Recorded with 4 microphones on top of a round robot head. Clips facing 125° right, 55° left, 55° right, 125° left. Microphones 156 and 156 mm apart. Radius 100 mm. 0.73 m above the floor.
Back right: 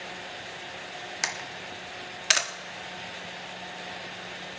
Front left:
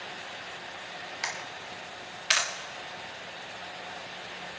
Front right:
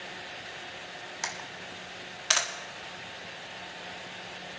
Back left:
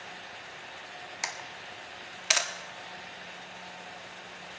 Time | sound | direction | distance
1.2 | a camera shutter | 155° right | 1.4 m